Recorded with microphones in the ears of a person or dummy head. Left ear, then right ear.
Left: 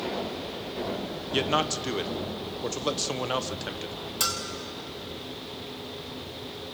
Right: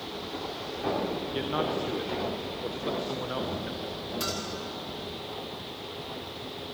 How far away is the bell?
About 1.9 m.